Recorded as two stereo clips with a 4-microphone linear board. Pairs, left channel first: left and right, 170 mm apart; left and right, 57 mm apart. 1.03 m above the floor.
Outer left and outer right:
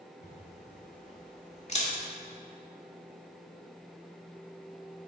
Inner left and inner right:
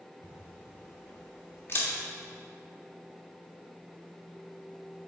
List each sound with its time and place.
0.2 s a camera shutter: 40° left (ahead or behind), 1.7 m